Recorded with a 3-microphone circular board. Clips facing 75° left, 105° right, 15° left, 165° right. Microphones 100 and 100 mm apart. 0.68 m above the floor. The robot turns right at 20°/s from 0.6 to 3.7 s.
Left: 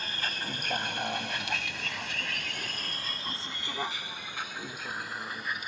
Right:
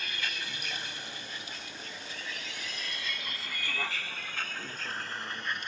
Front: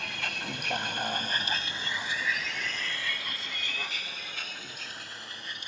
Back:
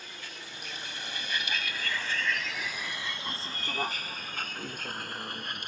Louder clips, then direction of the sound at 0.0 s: Left 2 dB, front 9 dB; 20° left.